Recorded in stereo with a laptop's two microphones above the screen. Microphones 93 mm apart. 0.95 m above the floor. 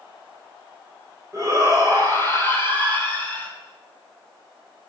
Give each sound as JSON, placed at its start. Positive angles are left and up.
{"t": 1.3, "sound": "a shout", "side_deg": -35, "distance_m": 3.5}